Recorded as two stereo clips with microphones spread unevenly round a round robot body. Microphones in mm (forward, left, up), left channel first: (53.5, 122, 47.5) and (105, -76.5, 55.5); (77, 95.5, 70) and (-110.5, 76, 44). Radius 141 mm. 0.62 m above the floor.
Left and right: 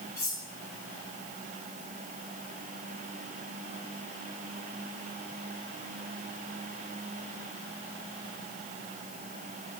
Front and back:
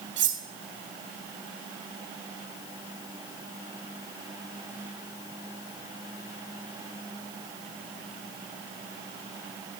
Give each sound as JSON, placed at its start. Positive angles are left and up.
{"t": 0.2, "sound": "cutlery clinking", "azimuth_deg": 180, "distance_m": 1.0}